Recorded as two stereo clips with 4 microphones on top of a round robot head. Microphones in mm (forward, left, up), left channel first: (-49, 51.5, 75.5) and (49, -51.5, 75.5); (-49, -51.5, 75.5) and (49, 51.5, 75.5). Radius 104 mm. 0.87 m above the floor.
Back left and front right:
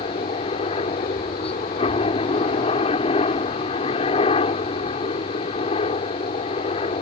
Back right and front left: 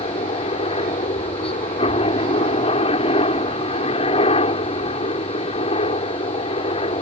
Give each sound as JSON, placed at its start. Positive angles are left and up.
{"t": 0.0, "sound": "a helicopter", "azimuth_deg": 180}